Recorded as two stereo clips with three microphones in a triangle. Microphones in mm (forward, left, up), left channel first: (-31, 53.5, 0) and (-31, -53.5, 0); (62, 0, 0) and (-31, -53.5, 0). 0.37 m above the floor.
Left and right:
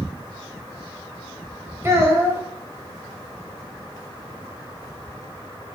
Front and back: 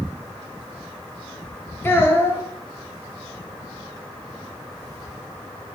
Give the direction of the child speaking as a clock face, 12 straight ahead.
1 o'clock.